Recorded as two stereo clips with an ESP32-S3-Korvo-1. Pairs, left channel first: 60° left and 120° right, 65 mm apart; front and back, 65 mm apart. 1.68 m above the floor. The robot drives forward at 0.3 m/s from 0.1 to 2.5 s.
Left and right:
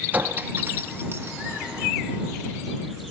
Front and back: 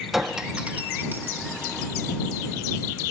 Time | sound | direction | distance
0.1 | a clink | 95° right | 0.6 m